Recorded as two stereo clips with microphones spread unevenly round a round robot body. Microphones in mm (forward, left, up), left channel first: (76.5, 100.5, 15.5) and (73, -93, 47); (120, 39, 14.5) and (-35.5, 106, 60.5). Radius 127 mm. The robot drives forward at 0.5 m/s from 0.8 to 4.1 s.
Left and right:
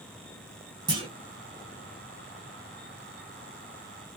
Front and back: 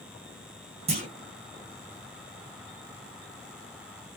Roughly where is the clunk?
Behind right.